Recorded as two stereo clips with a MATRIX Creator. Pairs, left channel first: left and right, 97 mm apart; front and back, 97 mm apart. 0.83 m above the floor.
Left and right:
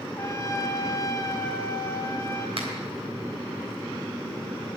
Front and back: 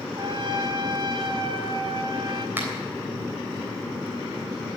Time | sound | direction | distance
0.2 | a trumpet | 145° left | 2 m
2.6 | a finger snap | 110° right | 3.5 m